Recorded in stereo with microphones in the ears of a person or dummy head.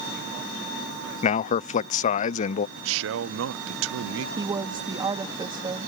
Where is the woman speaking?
20° right (ahead or behind).